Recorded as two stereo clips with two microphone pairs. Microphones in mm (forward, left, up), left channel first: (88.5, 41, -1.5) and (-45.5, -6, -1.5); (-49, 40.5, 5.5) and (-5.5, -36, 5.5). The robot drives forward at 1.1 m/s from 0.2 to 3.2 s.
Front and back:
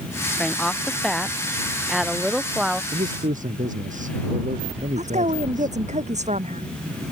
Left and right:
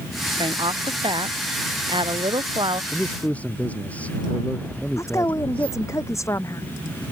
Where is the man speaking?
165° right; by 5.8 s 170° right.